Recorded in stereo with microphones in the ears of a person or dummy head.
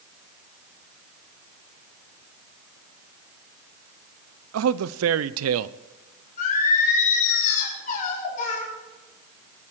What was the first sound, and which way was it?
A man speaking, 85° right.